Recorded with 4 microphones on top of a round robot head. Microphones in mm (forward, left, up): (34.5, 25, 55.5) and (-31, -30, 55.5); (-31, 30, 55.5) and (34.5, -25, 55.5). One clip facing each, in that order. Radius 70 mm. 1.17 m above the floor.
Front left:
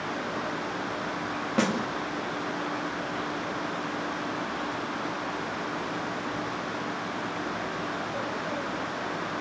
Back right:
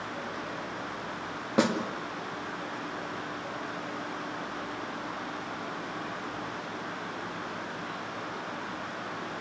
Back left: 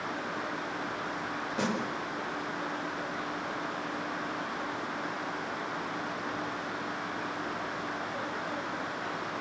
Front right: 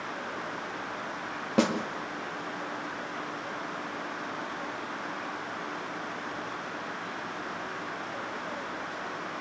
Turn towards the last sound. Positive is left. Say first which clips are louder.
# back right 1 dB, front right 7 dB
turn(degrees=-65)